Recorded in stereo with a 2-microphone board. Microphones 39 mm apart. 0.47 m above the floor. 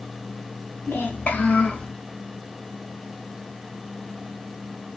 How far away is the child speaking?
About 1.7 m.